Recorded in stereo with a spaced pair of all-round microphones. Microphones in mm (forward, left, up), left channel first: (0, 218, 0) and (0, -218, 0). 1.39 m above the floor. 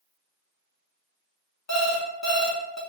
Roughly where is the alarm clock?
Left.